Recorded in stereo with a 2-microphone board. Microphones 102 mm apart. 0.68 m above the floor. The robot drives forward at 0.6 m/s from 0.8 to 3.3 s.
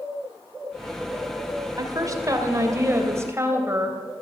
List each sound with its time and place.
1.8 s a woman speaking: 35° right (ahead or behind), 2 m; by 4.0 s 25° right (ahead or behind), 3 m